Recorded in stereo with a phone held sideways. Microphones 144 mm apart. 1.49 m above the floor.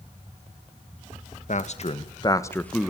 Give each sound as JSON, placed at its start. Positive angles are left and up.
{"t": 1.5, "sound": "a man speaking", "side_deg": 60, "distance_m": 1.8}